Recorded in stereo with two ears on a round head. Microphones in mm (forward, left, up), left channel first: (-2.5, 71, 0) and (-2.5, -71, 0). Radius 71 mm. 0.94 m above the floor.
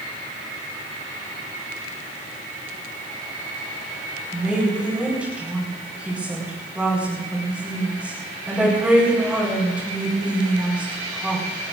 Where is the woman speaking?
10° right (ahead or behind), 4.5 m.